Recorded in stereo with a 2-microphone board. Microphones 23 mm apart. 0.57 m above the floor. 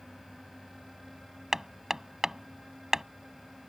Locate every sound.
1.5 s hammering: 20° right (ahead or behind)